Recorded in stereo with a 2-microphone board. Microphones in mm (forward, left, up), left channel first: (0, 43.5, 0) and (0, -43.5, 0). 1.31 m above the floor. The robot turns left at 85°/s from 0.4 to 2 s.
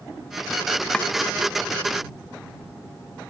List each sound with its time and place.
0.9 s chopping: 10° left (ahead or behind); by 1.1 s 20° left (ahead or behind)